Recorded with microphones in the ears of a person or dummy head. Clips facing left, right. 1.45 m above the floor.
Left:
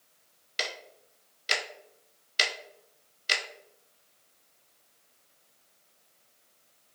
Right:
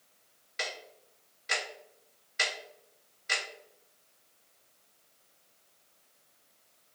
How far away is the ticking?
About 0.6 m.